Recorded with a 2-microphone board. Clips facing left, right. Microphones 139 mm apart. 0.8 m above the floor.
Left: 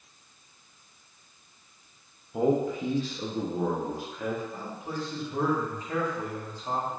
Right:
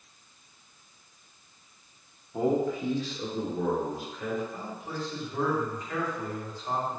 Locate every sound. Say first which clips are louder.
2.3 s a man speaking: left 1 dB; 5° left (ahead or behind), 0.5 m; by 4.4 s 60° left (ahead or behind), 1.4 m
4.5 s a man speaking: left 1 dB; 30° left (ahead or behind), 1.7 m